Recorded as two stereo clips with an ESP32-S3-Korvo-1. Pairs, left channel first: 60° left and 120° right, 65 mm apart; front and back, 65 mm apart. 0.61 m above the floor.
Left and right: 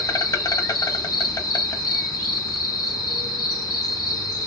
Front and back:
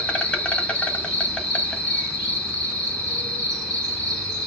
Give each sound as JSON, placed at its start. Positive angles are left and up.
{"t": 0.0, "sound": "an insect", "azimuth_deg": 70, "distance_m": 0.8}